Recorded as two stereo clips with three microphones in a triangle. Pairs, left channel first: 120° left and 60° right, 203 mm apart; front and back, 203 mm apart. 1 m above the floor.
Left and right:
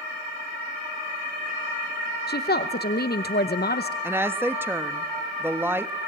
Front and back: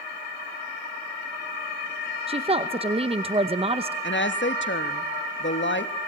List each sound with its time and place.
2.3 s a woman speaking: 130° left, 0.8 m
4.0 s a woman speaking: 20° left, 1.0 m